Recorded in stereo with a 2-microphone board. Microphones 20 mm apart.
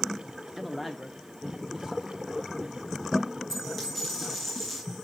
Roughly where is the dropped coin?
Centre.